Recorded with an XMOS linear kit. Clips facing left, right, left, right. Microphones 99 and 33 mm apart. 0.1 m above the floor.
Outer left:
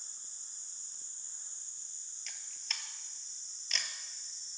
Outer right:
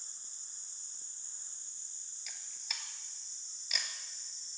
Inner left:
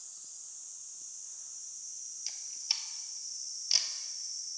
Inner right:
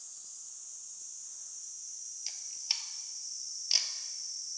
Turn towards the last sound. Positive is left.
turn(degrees=-10)  # may be behind; listen again after turning